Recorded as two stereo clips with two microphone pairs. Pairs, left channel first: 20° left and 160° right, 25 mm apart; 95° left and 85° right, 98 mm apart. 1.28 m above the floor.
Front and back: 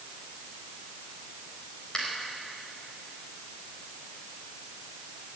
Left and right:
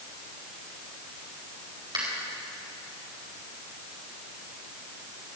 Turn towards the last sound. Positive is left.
turn(degrees=-45)